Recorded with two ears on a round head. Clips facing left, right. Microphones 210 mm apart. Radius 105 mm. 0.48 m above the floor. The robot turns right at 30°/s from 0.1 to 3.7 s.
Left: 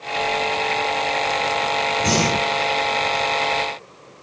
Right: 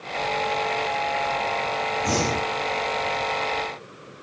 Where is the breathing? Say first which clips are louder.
Left 4 dB; 55° left (ahead or behind), 3.5 m; by 2.6 s 75° left (ahead or behind), 3.5 m.